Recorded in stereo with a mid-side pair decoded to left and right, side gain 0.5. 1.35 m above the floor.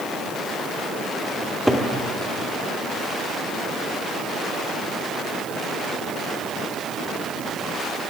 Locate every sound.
1.4 s a cupboard door: 5° right, 2.5 m